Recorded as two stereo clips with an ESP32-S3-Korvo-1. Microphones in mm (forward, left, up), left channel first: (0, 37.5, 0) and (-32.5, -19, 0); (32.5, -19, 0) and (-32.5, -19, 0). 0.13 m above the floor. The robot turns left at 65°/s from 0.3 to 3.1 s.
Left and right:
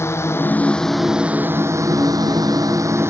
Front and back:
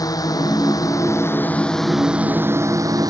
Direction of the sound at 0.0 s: 15° left.